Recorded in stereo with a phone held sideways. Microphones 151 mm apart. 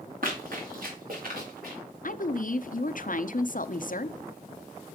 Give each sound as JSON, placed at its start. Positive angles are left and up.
{"t": 0.2, "sound": "running footsteps", "side_deg": -70, "distance_m": 3.5}
{"t": 2.0, "sound": "a woman speaking", "side_deg": 65, "distance_m": 0.7}